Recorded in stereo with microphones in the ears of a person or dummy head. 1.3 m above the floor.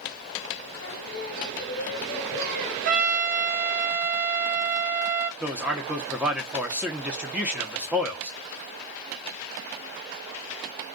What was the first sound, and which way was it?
Singing, 55° left (ahead or behind).